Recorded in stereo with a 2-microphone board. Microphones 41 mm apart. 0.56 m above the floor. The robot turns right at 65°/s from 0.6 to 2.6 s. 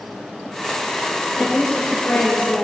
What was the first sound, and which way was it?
A woman speaking, 25° left.